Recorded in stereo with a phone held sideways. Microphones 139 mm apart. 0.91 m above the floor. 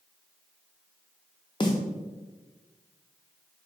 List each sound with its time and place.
1.6 s a snare drum: 35° left (ahead or behind), 0.5 m